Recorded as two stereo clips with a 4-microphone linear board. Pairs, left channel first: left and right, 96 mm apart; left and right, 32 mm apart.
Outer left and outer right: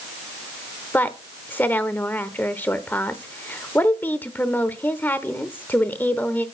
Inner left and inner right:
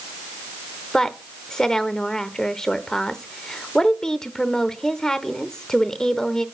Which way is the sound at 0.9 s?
20° left (ahead or behind).